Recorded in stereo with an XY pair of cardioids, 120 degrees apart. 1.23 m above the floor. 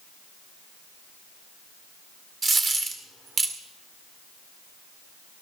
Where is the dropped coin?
35° right, 1.8 m.